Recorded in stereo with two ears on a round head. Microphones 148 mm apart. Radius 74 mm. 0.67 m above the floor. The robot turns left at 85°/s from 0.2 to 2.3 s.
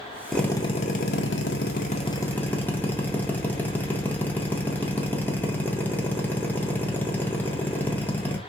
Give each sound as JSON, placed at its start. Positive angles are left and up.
{"t": 0.3, "sound": "a drill", "azimuth_deg": 180, "distance_m": 0.6}